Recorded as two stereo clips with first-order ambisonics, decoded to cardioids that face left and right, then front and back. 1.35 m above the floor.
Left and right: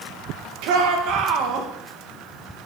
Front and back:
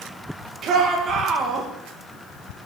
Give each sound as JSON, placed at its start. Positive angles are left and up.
{"t": 0.6, "sound": "a shout", "azimuth_deg": -120, "distance_m": 1.9}